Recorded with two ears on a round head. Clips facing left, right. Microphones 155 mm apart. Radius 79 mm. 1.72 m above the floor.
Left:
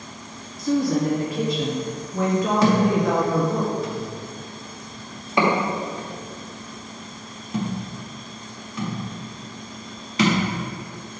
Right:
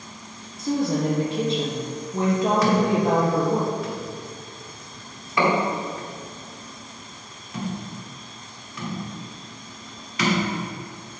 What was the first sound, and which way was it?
A woman speaking, 20° right (ahead or behind).